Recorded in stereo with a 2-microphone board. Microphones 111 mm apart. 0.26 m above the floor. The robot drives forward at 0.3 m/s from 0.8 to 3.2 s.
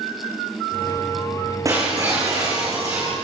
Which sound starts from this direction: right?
Breaking glass, at 1.6 s.